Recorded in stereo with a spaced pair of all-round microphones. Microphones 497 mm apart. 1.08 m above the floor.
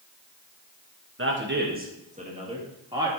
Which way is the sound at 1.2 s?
25° right (ahead or behind).